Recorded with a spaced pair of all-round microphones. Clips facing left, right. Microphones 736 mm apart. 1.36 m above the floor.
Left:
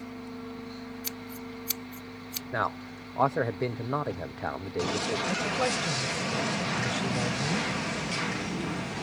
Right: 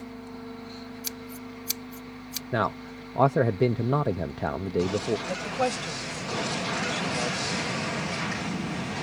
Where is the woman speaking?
50° left (ahead or behind).